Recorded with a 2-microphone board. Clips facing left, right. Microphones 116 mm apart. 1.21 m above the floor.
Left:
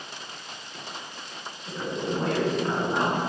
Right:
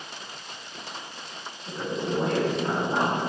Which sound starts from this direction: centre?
A woman speaking, at 1.6 s.